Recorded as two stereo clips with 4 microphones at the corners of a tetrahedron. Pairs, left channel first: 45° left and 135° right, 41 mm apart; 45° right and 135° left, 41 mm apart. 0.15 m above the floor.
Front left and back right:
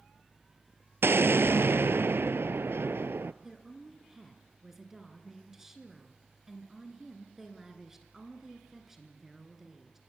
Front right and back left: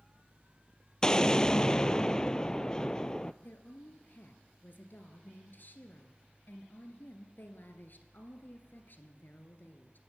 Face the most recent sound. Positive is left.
turn(degrees=-55)